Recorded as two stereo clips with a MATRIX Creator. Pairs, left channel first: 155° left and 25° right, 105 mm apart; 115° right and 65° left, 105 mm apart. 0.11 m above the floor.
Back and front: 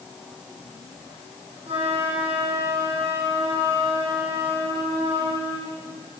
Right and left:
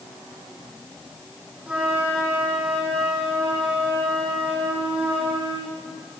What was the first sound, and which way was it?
A flute, 10° right.